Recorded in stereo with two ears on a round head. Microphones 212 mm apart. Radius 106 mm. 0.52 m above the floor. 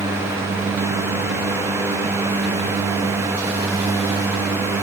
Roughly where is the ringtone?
No ringtone in this recording.